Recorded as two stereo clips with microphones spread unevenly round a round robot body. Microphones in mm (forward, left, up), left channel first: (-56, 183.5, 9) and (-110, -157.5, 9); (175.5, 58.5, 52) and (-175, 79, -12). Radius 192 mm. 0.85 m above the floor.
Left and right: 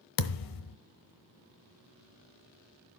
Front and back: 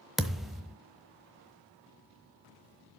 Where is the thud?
80° left, 1.0 m.